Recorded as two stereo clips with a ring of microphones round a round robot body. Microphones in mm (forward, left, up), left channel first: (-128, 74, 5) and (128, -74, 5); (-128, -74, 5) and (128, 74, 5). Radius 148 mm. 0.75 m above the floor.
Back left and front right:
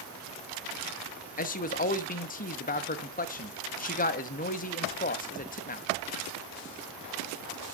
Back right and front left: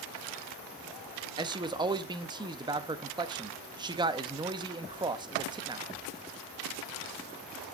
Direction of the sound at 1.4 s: 100° left.